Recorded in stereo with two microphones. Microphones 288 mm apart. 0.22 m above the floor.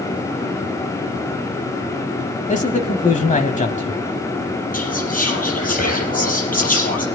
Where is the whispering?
30° left (ahead or behind), 4.5 m.